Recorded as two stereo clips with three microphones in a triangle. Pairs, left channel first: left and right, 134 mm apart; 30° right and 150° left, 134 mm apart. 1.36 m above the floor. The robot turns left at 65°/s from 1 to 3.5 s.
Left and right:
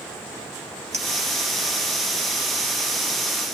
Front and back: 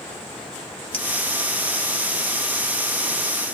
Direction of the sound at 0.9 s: 70° right.